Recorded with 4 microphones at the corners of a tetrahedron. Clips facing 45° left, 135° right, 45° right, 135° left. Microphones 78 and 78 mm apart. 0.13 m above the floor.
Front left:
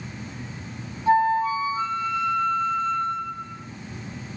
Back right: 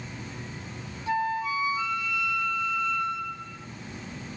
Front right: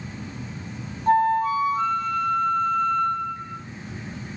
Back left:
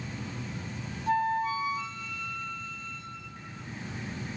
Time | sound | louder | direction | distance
1.1 | a flute | front left 8 dB, front right 8 dB | 10° right | 0.8 m